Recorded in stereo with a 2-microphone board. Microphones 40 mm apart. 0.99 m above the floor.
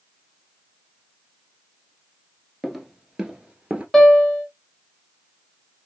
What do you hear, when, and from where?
2.6 s footsteps: centre (ahead or behind), 1.0 m; by 3.8 s 30° right (ahead or behind), 1.1 m
3.9 s a piano: 5° left (ahead or behind), 1.1 m